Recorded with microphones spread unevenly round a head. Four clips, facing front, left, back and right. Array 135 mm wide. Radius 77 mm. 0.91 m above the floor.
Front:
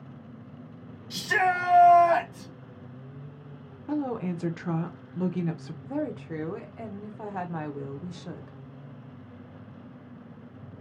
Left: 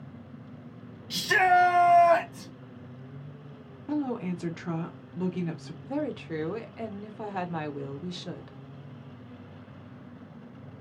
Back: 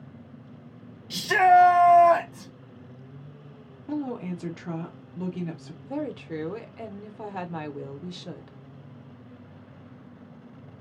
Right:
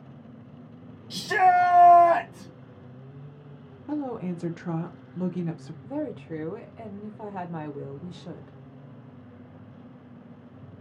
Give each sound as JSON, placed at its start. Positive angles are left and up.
{"t": 1.1, "sound": "a shout", "azimuth_deg": 170, "distance_m": 0.7}
{"t": 3.9, "sound": "a woman speaking", "azimuth_deg": 35, "distance_m": 0.7}
{"t": 5.8, "sound": "a woman speaking", "azimuth_deg": 75, "distance_m": 0.7}